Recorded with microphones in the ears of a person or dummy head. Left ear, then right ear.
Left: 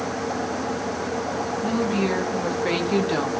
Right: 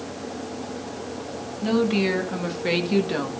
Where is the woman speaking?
35° right (ahead or behind), 3 m; by 3.3 s 10° left (ahead or behind), 1.7 m.